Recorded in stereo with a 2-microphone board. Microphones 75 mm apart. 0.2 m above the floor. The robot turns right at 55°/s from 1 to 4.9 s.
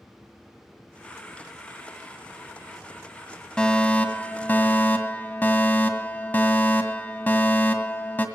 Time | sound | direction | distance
3.6 | a fire alarm | 10° left (ahead or behind) | 2.0 m